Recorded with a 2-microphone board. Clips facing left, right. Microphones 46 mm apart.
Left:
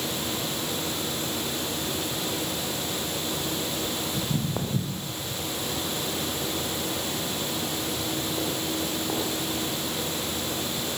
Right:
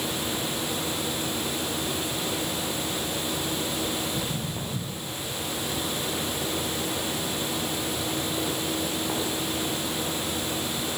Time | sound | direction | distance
4.1 | footsteps | 45° left (ahead or behind) | 2 m